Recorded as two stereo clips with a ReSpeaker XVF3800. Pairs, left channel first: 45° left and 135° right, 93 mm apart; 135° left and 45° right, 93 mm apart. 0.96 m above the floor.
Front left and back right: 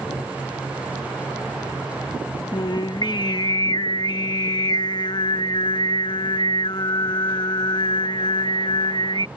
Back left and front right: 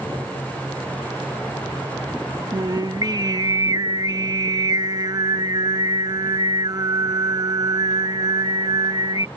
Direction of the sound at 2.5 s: 5° left.